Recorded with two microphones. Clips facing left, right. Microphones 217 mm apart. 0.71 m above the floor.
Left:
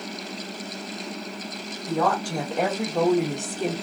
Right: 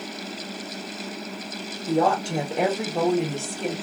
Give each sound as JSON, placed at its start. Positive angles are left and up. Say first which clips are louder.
{"t": 1.9, "sound": "a woman speaking", "louder": "right 3 dB", "side_deg": -35, "distance_m": 1.1}